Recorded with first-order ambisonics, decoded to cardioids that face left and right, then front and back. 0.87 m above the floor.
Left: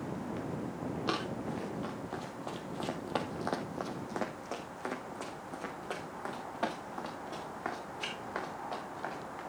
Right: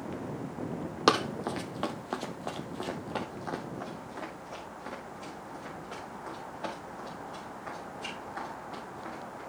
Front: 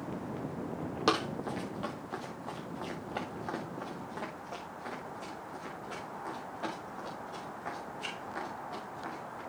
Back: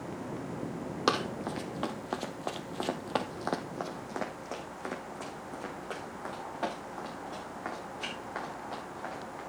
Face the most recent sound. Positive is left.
turn(degrees=120)